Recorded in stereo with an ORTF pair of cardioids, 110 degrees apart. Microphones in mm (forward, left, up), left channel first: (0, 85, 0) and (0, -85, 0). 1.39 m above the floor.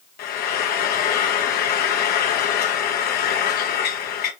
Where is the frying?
60° left, 1.0 m.